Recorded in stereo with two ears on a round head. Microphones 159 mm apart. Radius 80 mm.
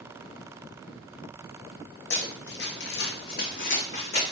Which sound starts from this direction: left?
Running footsteps, at 2.1 s.